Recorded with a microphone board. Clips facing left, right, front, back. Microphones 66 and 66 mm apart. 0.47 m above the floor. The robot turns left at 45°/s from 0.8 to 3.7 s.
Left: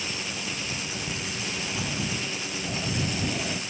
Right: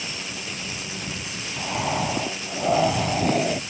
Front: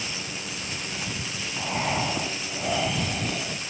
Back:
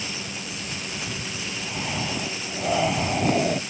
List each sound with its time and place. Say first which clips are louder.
1.6 s breathing: right 10 dB, front 5 dB; 50° right; by 3.6 s 140° right